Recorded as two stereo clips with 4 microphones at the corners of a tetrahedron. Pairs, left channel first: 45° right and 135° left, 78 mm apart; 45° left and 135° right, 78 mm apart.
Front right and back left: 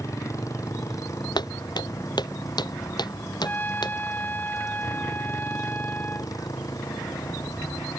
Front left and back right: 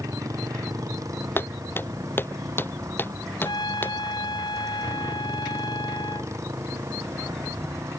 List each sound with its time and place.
0.0 s a motorcycle: 90° right; by 8.0 s 85° right
1.4 s footsteps: 15° right; by 4.0 s 20° right
3.4 s a trumpet: 25° left